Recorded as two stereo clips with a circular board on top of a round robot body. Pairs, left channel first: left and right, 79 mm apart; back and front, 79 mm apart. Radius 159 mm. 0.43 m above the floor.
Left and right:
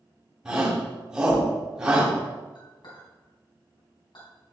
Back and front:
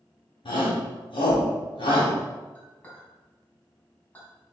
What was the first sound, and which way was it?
A shout, 165° right.